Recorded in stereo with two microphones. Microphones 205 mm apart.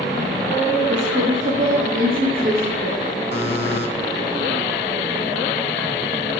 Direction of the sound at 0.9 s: 65° right (ahead or behind).